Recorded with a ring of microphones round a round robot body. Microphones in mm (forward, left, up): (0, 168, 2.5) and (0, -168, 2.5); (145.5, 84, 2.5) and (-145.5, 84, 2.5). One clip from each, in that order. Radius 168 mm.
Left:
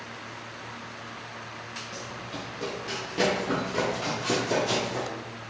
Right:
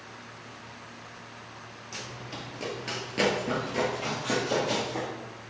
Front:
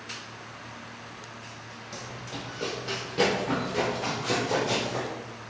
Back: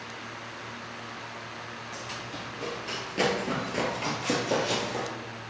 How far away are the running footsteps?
About 1.3 m.